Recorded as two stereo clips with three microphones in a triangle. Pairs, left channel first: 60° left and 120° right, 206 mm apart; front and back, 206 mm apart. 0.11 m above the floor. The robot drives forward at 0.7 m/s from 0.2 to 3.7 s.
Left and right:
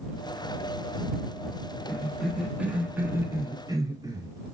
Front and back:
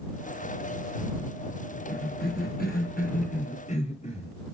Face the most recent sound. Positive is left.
turn(degrees=-50)